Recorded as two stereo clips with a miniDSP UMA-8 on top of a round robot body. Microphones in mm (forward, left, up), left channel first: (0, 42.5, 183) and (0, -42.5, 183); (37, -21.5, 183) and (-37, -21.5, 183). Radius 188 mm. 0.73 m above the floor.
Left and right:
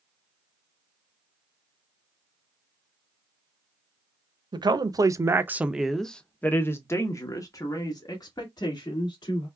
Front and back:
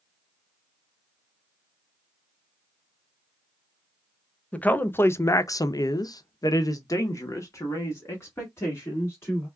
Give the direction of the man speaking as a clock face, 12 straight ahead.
2 o'clock.